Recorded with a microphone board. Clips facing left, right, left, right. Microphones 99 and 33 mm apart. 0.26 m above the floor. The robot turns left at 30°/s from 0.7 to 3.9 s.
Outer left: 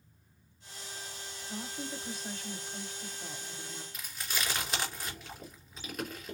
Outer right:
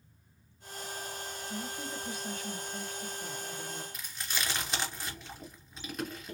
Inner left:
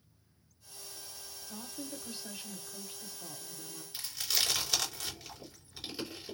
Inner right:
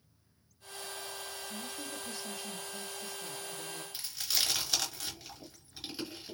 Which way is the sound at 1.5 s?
65° left.